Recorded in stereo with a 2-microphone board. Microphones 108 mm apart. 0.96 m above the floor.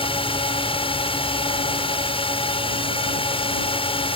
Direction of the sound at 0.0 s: 55° left (ahead or behind).